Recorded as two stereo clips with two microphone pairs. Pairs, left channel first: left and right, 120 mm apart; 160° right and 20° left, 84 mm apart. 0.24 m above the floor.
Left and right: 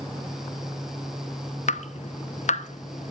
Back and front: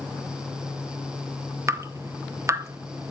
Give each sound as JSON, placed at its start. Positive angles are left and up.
{"t": 1.7, "sound": "dripping", "azimuth_deg": 75, "distance_m": 0.8}